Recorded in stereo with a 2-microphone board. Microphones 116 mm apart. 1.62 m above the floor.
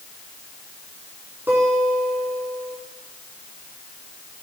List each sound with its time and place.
1.5 s a guitar: 15° right (ahead or behind), 4 m